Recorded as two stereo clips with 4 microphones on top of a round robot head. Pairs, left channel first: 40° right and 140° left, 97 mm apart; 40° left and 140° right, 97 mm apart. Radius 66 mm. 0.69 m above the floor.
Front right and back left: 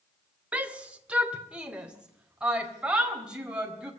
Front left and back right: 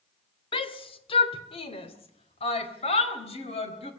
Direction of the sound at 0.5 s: 65° left.